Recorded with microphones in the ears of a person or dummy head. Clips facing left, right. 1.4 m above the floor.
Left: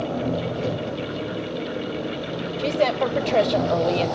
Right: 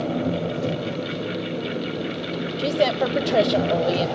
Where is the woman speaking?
10° right (ahead or behind), 1.0 m.